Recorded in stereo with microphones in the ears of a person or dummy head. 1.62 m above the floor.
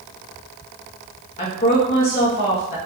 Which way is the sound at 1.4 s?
45° left (ahead or behind).